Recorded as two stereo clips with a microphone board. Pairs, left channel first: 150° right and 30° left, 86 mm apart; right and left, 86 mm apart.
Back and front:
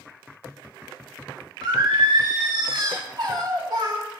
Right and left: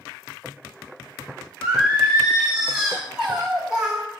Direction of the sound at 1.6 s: 10° left.